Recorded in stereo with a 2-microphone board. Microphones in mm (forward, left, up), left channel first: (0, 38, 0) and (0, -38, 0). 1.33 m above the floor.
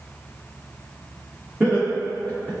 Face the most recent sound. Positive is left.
turn(degrees=-25)  # may be behind; listen again after turning